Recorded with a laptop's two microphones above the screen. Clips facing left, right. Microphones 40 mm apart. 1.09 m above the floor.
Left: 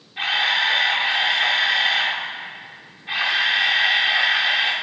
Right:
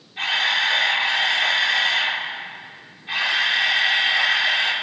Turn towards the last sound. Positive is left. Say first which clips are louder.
# left 1 dB
turn(degrees=15)  # may be behind; listen again after turning